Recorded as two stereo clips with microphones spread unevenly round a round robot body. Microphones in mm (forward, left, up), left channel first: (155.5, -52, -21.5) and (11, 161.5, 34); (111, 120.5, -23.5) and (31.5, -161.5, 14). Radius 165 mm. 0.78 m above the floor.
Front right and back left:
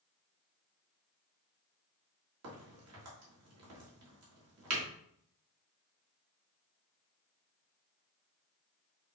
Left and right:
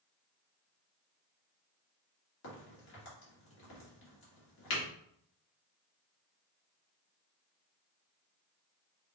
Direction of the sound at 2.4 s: 110° left.